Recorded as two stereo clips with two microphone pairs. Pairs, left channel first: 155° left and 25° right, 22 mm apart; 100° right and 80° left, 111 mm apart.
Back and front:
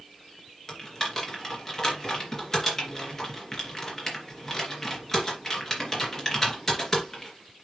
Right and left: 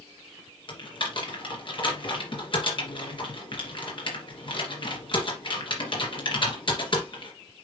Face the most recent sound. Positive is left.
turn(degrees=-135)